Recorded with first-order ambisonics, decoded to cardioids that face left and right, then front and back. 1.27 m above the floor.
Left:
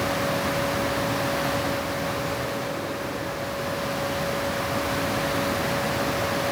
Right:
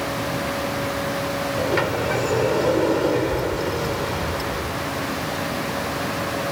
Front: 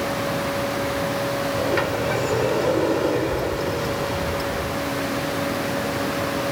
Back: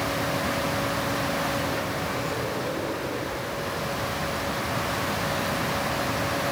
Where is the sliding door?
55° right.